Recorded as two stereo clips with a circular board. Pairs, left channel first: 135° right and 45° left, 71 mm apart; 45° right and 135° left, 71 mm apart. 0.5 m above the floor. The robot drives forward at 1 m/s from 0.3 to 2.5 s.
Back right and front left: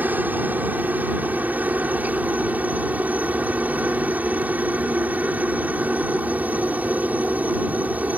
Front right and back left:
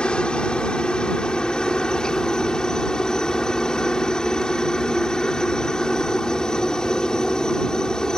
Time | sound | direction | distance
0.0 | a helicopter | 15° left | ?